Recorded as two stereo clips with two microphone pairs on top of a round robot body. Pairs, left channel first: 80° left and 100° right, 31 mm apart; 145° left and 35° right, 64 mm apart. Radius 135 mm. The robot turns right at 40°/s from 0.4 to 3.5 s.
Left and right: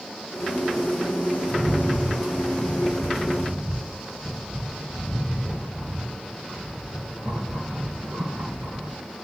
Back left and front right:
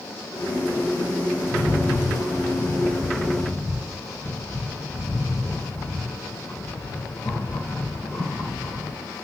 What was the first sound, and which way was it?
A rattle, 120° left.